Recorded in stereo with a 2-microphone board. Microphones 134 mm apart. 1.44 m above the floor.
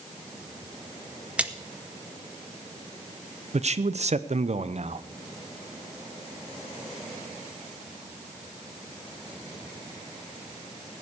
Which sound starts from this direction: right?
A man speaking, at 3.5 s.